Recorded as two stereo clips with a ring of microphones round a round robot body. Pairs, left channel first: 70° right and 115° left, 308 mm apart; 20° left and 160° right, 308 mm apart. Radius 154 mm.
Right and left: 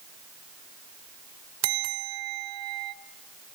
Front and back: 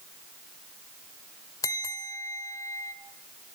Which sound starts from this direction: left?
A bell, at 1.6 s.